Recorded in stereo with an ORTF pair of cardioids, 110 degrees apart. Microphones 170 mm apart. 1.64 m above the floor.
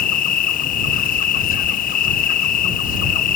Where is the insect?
55° left.